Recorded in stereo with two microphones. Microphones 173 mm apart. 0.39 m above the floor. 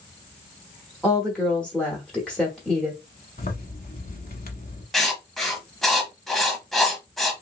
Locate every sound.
1.0 s a woman speaking: 5° left (ahead or behind), 1.1 m
3.4 s a zipper: 50° left (ahead or behind), 1.0 m
4.9 s writing: centre (ahead or behind), 0.9 m